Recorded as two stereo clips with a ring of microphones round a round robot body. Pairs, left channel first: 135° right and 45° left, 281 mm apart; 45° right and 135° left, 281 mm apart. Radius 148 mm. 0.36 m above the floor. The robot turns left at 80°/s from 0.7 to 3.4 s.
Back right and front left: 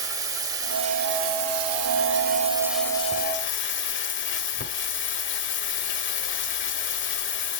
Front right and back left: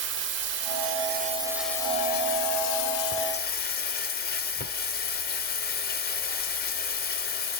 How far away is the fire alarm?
I don't hear a fire alarm.